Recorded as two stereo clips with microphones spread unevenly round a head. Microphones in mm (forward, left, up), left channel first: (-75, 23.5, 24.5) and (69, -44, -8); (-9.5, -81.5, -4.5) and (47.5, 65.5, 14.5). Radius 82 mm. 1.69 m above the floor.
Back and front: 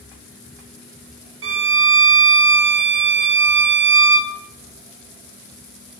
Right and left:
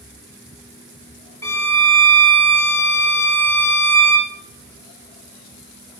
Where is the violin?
35° right, 1.3 m.